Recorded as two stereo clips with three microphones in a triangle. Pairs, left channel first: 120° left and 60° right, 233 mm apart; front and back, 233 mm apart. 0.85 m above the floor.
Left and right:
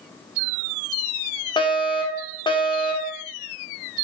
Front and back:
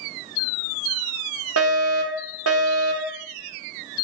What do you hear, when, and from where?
1.6 s a fire alarm: 170° right, 3.5 m